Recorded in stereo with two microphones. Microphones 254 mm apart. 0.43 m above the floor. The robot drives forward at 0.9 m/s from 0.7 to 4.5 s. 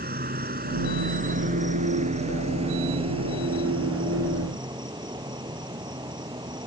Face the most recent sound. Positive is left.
turn(degrees=-15)  # may be behind; listen again after turning